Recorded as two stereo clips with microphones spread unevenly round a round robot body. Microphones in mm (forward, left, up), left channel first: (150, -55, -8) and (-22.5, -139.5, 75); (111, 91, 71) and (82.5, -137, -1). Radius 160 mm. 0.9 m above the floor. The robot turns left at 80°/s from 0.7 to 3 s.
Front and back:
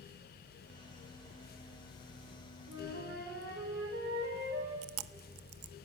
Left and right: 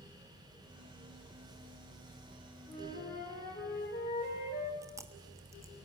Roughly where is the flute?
Behind.